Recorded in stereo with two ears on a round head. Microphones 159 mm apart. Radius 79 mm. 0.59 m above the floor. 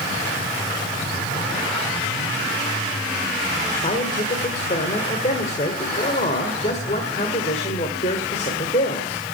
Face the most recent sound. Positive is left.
turn(degrees=40)  # may be behind; listen again after turning